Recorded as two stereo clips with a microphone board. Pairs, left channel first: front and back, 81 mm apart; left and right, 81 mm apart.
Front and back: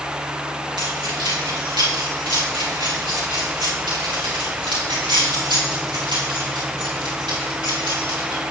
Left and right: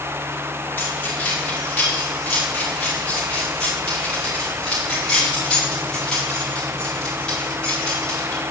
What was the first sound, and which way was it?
Keys jangling, 160° left.